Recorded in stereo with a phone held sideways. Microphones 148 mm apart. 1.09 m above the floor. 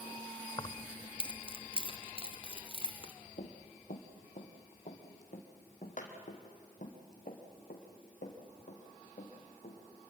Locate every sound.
0.6 s keys jangling: 30° left (ahead or behind), 0.6 m; by 3.1 s 35° left (ahead or behind), 2.5 m
3.4 s running footsteps: 55° left (ahead or behind), 1.9 m